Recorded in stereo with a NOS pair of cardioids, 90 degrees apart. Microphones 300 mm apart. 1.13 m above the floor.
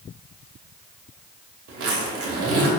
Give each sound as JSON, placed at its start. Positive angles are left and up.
{"t": 1.7, "sound": "a zipper", "azimuth_deg": -55, "distance_m": 2.5}